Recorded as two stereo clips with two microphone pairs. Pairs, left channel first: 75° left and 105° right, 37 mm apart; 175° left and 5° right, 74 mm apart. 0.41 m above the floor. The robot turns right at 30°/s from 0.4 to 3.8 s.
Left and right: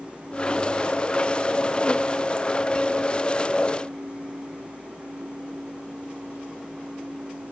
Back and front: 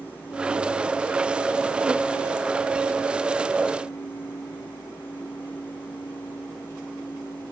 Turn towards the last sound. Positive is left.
No sound to turn to.